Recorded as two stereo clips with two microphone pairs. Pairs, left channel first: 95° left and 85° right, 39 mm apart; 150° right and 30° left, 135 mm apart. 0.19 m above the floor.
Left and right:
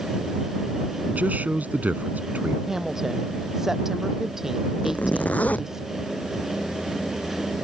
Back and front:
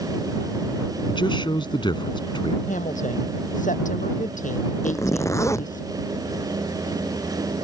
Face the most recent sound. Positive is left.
turn(degrees=140)